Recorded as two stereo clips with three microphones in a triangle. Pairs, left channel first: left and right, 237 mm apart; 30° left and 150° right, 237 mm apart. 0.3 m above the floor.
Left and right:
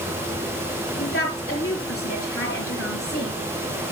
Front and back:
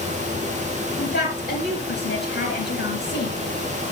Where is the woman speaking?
70° left, 4 m.